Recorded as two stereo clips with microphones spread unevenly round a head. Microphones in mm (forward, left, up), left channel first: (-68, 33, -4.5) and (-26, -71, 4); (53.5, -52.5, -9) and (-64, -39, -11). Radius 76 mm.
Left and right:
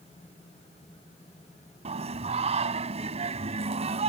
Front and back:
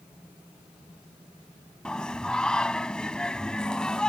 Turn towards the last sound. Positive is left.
turn(degrees=-90)